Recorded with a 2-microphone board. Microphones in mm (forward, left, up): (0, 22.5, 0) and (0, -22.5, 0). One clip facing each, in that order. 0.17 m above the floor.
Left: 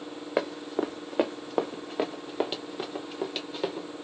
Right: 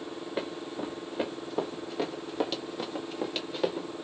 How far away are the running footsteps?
About 1.1 m.